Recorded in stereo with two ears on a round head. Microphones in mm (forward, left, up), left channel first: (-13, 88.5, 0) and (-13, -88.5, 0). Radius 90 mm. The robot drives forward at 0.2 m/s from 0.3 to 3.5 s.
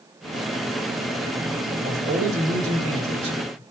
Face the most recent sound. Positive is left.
turn(degrees=-35)  # may be behind; listen again after turning